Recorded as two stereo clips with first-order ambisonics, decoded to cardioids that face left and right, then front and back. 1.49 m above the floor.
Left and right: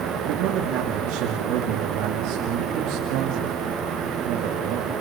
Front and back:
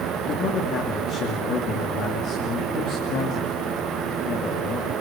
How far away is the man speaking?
About 2.5 m.